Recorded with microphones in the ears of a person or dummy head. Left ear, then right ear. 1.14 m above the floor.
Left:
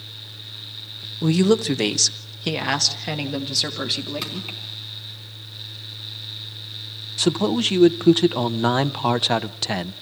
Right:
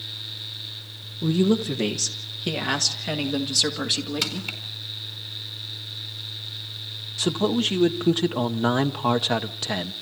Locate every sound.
1.2 s a woman speaking: 55° left (ahead or behind), 1.0 m; by 4.5 s centre (ahead or behind), 3 m
4.2 s crushing: 20° right (ahead or behind), 4.5 m
7.2 s a man speaking: 15° left (ahead or behind), 0.6 m